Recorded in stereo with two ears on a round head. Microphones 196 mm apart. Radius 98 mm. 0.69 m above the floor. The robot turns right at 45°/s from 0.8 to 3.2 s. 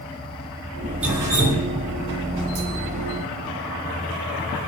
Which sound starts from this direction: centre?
Dripping, at 1.0 s.